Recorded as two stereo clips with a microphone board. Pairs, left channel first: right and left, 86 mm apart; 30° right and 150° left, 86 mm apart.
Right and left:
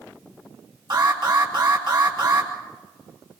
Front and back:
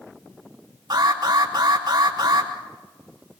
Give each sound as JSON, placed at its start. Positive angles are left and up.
{"t": 0.9, "sound": "an alarm", "azimuth_deg": 115, "distance_m": 4.5}